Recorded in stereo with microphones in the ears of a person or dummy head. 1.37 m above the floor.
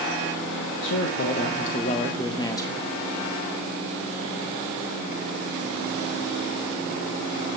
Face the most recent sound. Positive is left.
turn(degrees=10)  # may be behind; listen again after turning